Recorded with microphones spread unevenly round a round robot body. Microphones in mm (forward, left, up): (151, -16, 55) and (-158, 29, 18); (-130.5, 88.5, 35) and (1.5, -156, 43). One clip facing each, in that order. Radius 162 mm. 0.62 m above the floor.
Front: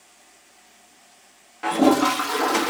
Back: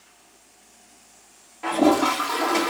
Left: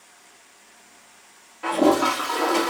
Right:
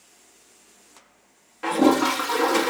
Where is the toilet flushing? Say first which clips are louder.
Front 1 dB, right 1 dB; 30° right, 1.0 m.